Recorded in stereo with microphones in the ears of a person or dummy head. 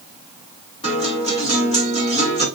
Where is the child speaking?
I don't hear a child speaking.